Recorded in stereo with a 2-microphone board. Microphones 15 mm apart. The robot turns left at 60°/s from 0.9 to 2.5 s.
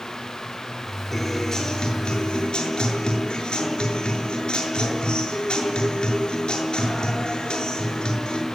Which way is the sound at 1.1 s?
170° left.